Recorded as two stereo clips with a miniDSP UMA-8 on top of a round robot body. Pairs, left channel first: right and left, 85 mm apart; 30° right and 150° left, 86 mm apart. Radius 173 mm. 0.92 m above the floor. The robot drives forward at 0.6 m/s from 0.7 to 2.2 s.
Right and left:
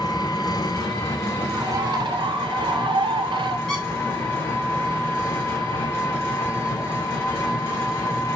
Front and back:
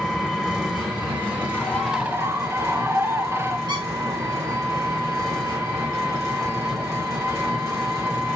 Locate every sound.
0.0 s an engine running: 125° right, 1.1 m; by 8.4 s 150° right, 1.7 m
1.5 s a bird: 40° left, 0.6 m; by 3.6 s 90° left, 0.5 m
3.7 s a squeak: 175° right, 0.5 m